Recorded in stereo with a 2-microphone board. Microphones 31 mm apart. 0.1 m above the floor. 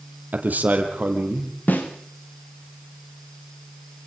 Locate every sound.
0.3 s a man speaking: 65° right (ahead or behind), 2.5 m; by 1.6 s 50° right (ahead or behind), 3 m
1.7 s a snare drum: 65° left (ahead or behind), 2.5 m